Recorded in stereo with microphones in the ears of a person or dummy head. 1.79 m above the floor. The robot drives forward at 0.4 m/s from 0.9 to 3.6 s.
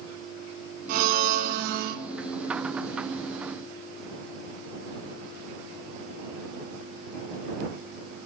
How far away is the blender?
About 3 m.